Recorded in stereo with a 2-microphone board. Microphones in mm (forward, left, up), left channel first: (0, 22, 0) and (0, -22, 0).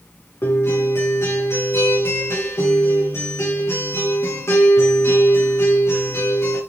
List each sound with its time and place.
0.4 s a guitar: 80° left, 6.5 m